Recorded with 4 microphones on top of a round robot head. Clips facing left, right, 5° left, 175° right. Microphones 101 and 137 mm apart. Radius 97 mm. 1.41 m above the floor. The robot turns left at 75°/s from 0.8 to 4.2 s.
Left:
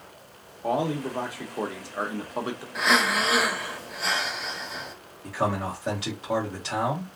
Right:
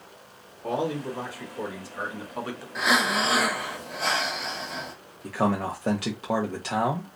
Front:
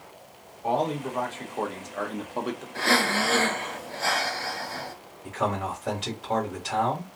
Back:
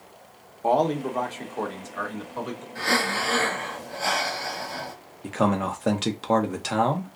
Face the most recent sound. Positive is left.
turn(degrees=-150)